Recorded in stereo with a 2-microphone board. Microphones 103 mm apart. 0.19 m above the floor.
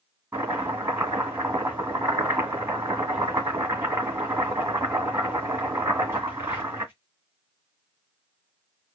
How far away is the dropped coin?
I don't hear a dropped coin.